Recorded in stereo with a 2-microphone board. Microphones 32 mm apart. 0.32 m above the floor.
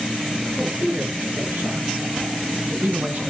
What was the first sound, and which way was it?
A man speaking, 70° right (ahead or behind).